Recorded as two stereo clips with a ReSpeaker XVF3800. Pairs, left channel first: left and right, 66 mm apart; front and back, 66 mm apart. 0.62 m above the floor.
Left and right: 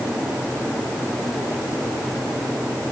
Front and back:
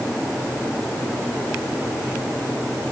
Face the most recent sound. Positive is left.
No sound to turn to.